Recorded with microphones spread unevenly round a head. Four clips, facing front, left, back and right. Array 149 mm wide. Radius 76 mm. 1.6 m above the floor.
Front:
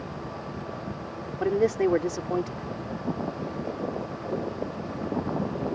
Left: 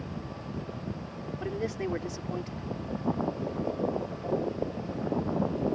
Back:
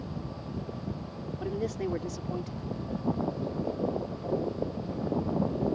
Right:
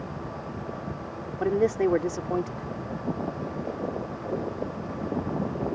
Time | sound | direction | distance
1.4 | a man speaking | 35° right | ?